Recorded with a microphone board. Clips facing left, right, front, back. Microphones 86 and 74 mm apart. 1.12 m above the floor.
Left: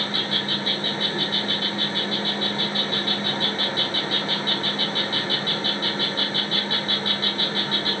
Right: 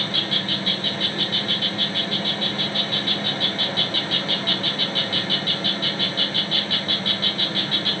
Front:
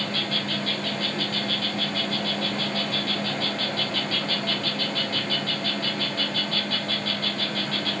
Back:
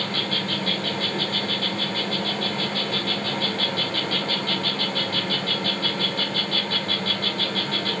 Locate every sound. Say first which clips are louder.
0.0 s an insect: even, back 1 dB; 145° left, 1.4 m